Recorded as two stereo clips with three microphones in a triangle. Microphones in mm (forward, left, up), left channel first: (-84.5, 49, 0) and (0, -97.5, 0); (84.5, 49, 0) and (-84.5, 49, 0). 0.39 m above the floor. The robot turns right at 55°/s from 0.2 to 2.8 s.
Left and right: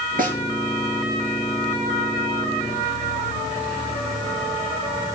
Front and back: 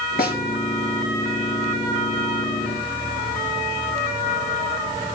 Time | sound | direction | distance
0.2 | a snare drum | 30° right | 5 m